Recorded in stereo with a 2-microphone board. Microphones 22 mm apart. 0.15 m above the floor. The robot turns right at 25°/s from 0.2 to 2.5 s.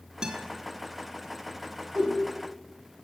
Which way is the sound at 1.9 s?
40° right (ahead or behind).